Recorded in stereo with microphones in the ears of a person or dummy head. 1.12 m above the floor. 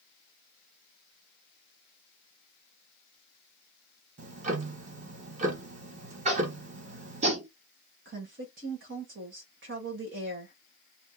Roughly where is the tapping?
Right.